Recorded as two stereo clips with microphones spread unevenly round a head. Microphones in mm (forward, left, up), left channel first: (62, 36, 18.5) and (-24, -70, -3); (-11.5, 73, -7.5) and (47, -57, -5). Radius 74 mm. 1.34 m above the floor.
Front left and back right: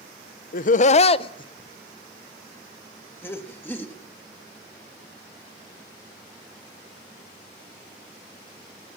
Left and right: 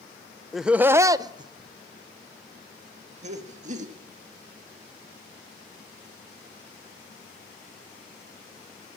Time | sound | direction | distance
0.5 | laughter | 25° left | 0.6 m